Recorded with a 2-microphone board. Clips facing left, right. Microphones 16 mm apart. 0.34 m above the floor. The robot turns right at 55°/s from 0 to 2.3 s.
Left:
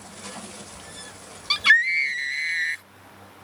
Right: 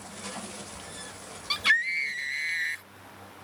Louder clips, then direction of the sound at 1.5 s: Left 7 dB; 90° left.